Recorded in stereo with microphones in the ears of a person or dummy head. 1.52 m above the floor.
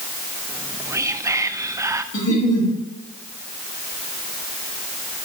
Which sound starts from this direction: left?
A giggle, at 2.1 s.